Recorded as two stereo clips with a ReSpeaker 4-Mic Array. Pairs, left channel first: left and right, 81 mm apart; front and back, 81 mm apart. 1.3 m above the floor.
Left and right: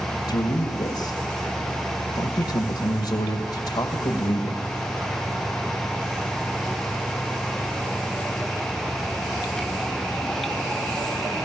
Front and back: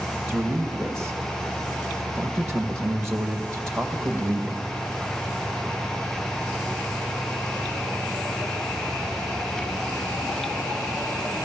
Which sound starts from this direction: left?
A man speaking, at 0.3 s.